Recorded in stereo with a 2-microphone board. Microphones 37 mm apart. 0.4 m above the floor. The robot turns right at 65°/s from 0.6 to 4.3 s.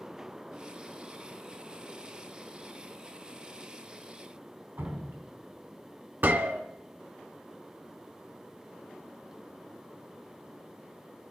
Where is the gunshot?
65° right (ahead or behind), 1.0 m.